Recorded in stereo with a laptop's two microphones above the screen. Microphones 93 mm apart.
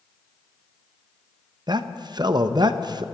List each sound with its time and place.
1.7 s a man speaking: 50° right (ahead or behind), 0.6 m